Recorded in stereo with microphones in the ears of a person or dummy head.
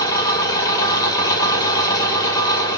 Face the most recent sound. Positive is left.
turn(degrees=20)  # may be behind; listen again after turning